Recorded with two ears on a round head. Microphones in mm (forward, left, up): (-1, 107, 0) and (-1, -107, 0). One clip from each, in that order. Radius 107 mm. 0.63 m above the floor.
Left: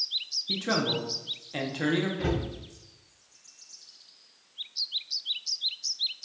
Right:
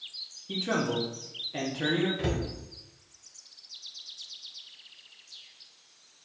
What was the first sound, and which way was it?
A man speaking, 20° left (ahead or behind).